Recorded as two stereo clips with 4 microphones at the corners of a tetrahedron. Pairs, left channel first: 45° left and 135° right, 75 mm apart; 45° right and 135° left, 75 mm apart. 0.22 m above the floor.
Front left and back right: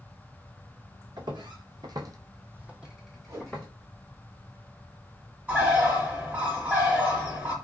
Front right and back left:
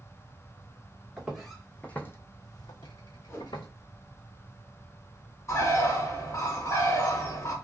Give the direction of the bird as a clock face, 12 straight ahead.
2 o'clock.